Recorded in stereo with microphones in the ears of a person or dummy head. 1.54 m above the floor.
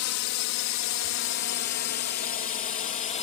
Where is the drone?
70° left (ahead or behind); by 3.2 s 35° left (ahead or behind).